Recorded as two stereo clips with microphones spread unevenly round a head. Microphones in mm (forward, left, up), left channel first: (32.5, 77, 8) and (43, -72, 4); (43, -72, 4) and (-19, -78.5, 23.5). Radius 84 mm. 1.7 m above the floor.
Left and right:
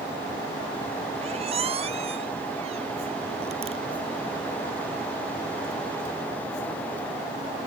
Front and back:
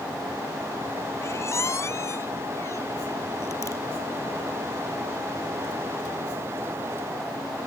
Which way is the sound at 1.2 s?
35° right.